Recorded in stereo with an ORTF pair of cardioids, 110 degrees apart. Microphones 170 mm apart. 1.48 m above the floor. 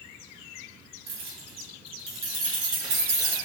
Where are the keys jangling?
65° right, 1.7 m; by 3.4 s 75° right, 3.5 m.